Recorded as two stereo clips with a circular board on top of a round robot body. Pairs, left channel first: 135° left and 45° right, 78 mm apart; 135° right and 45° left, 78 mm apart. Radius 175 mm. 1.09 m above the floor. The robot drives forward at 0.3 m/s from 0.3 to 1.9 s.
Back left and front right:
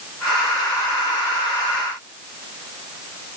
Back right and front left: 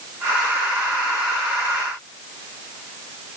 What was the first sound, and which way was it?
Only background noise.